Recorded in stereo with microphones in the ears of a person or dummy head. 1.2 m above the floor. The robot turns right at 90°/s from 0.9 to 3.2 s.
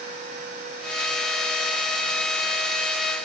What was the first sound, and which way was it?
Only background noise.